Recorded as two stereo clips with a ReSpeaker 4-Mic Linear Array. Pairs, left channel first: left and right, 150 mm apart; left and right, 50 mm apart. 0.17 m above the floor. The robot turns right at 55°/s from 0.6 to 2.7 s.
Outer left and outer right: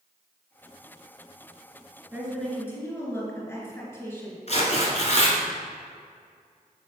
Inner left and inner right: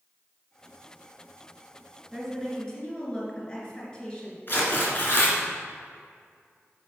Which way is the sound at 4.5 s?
50° left (ahead or behind).